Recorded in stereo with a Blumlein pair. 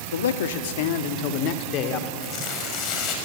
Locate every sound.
0.1 s a man speaking: 65° left, 1.6 m; by 2.1 s 35° left, 3 m
2.2 s tearing paper: 35° left, 5.5 m